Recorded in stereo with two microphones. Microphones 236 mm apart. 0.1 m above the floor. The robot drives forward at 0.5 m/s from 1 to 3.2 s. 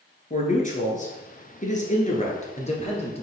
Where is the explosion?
I don't hear an explosion.